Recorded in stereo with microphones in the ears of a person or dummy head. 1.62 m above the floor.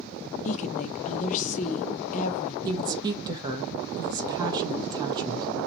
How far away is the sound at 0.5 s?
About 0.5 m.